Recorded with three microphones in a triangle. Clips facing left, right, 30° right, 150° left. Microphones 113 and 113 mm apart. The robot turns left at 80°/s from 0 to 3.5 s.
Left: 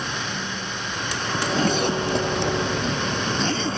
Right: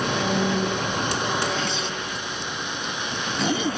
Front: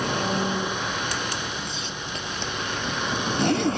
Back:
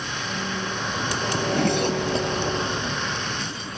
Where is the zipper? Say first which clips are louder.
Left 4 dB, back 11 dB; 160° left; by 3.8 s 15° right.